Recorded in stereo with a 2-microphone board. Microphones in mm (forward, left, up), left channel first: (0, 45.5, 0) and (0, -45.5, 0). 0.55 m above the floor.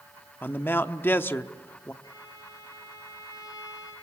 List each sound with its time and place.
0.4 s a man speaking: 20° left (ahead or behind), 0.9 m
2.0 s a violin: 40° left (ahead or behind), 8.5 m